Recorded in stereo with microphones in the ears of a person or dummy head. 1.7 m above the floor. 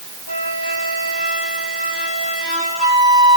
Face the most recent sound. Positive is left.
turn(degrees=85)